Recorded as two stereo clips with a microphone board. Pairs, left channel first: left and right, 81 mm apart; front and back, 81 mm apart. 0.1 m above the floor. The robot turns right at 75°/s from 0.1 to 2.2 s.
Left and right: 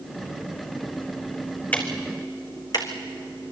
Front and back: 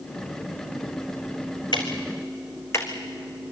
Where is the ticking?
20° left, 2.5 m; by 2.9 s 55° left, 2.5 m.